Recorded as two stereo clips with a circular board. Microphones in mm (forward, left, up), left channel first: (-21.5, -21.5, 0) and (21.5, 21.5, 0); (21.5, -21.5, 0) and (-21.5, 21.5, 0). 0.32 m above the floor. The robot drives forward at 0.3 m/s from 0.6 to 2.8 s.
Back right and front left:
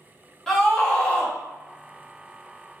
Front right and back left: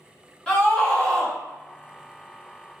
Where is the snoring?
No snoring in this recording.